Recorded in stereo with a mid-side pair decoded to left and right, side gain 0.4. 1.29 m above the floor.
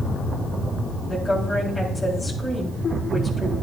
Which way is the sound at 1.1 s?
25° left.